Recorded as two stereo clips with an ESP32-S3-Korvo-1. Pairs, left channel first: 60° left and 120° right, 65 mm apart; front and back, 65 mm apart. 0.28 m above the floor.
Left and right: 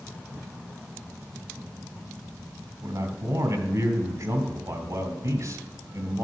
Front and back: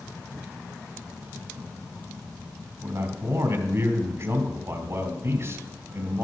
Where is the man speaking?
140° right, 2.5 m.